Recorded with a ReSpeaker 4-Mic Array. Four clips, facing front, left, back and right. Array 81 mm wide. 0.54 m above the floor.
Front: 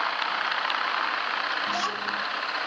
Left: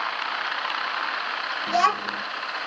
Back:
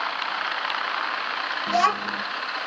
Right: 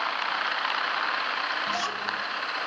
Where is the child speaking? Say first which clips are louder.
Left 8 dB, back 7 dB; 140° left, 1.1 m.